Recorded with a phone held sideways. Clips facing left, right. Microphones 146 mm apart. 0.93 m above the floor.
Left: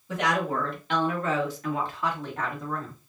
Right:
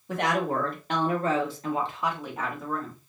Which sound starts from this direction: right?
A woman speaking, at 0.1 s.